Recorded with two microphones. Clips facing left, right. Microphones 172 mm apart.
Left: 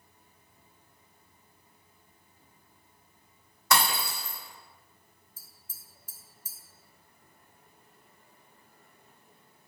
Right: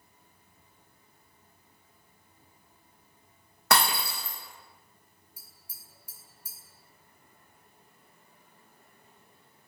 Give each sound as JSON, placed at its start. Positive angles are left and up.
{"t": 3.7, "sound": "breaking glass", "side_deg": -60, "distance_m": 1.3}
{"t": 5.4, "sound": "tapping", "side_deg": -10, "distance_m": 0.8}